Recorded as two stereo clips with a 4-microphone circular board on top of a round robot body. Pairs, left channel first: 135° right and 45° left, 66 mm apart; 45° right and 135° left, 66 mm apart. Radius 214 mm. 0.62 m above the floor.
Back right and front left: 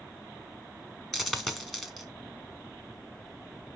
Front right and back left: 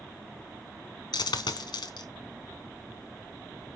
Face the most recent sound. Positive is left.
turn(degrees=-50)